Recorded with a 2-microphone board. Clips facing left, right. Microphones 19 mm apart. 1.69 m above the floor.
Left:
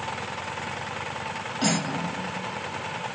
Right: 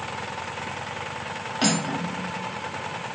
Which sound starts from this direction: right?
Cutlery clinking, at 1.6 s.